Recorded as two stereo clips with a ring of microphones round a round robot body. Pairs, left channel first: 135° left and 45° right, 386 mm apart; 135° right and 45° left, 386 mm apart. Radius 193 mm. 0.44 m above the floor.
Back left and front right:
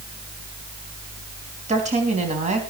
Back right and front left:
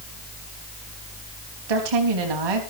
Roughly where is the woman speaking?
Ahead left.